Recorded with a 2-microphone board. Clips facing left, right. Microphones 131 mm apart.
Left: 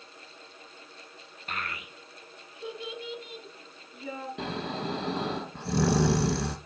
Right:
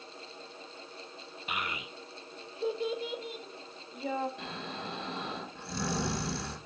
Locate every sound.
1.5 s a child speaking: 10° right (ahead or behind), 0.5 m; by 4.3 s 50° right (ahead or behind), 1.8 m
4.4 s snoring: 70° left (ahead or behind), 1.2 m